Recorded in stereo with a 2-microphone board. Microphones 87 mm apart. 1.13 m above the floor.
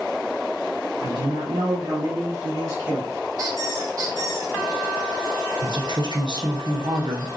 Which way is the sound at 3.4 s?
40° right (ahead or behind).